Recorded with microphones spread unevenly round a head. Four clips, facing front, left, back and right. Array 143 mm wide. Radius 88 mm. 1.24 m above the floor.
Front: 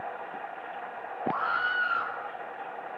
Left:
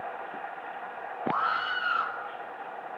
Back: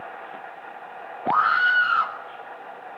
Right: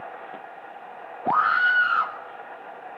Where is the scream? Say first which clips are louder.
Right 8 dB, back 9 dB; 100° right, 1.7 m.